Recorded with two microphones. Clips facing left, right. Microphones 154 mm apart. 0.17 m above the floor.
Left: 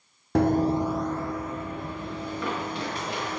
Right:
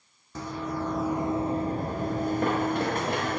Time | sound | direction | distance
0.3 | running footsteps | 65° left (ahead or behind) | 0.6 m